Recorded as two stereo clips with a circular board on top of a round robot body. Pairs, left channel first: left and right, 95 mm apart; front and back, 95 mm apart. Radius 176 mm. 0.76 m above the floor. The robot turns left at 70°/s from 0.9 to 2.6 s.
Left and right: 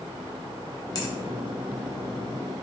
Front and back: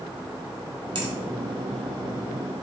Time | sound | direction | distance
0.9 | a finger snap | 140° left | 1.3 m